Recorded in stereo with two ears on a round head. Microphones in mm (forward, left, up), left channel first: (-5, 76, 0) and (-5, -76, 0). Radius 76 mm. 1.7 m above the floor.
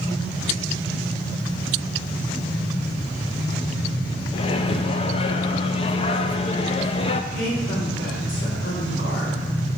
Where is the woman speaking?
80° left, 4 m.